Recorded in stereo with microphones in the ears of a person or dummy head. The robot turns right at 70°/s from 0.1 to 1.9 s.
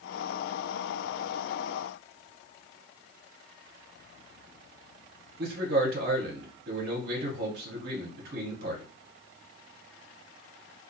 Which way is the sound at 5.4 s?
55° right (ahead or behind).